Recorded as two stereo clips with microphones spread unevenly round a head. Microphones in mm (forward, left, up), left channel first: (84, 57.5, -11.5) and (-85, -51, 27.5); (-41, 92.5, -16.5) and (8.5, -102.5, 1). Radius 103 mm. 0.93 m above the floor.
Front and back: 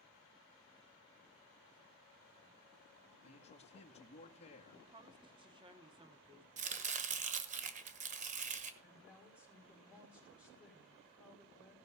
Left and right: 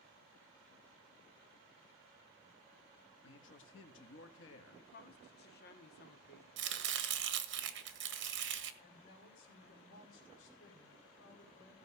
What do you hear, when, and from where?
3.2 s a man speaking: 85° left, 1.8 m
4.8 s a woman speaking: 145° left, 1.5 m
6.6 s chopping: 90° right, 1.4 m
8.8 s a woman speaking: 125° left, 5 m